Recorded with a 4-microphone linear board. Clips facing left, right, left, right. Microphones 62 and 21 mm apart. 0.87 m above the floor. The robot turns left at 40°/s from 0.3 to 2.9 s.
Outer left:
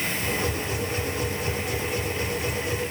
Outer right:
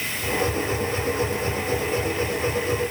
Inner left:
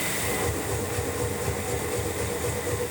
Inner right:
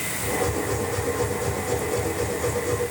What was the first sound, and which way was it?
Only background noise.